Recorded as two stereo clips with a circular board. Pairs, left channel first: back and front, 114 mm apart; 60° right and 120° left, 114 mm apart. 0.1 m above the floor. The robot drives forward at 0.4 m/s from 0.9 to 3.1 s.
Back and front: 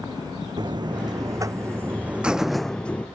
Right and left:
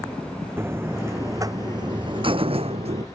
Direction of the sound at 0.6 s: 50° left.